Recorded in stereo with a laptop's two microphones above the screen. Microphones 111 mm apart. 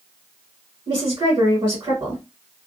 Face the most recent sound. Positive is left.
turn(degrees=-40)  # may be behind; listen again after turning